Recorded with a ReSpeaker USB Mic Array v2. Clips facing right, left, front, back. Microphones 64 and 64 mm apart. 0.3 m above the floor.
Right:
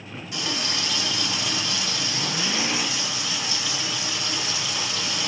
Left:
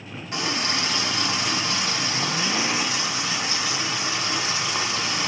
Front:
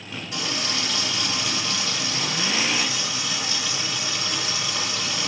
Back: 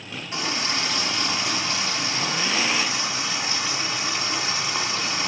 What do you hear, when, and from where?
0.3 s a running tap: 130° left, 1.8 m